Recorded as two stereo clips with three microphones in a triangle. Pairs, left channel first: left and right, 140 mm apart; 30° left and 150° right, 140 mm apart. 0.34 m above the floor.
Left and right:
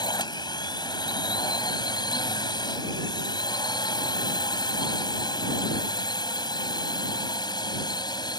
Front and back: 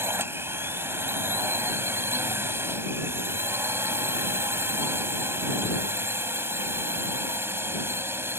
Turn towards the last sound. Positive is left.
turn(degrees=140)